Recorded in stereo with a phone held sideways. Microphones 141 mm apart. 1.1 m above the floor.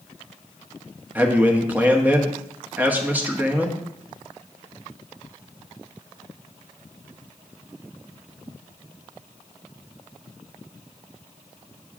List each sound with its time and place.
1.1 s a man speaking: 10° right (ahead or behind), 1.0 m